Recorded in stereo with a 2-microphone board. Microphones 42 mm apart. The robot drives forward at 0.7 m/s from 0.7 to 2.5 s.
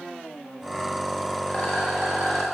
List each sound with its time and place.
1.5 s a rattle: 35° left (ahead or behind), 1.7 m; by 2.5 s 25° left (ahead or behind), 2 m